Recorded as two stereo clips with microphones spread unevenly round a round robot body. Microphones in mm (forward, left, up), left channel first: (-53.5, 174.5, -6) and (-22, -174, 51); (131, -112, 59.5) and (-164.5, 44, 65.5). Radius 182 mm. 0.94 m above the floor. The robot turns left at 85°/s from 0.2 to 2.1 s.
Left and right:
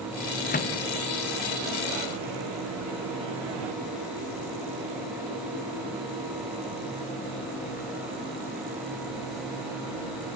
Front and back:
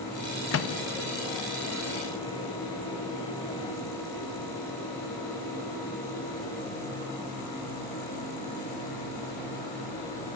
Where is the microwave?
30° left, 0.5 m; by 3.7 s 105° right, 0.5 m.